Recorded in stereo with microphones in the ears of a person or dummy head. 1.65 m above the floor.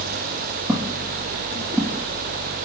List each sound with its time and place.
0.7 s footsteps: centre (ahead or behind), 4.5 m; by 2.0 s 5° left (ahead or behind), 4 m